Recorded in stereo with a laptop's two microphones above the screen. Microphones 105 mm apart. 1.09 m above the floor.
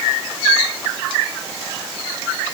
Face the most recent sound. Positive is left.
No sound to turn to.